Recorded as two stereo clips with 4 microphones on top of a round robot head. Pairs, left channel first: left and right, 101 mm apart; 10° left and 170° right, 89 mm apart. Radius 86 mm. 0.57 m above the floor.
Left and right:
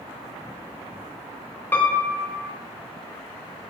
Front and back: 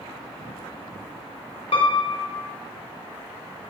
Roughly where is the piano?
Ahead.